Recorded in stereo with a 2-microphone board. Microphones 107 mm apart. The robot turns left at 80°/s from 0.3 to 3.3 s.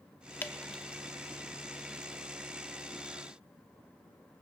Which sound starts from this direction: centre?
Dripping, at 0.4 s.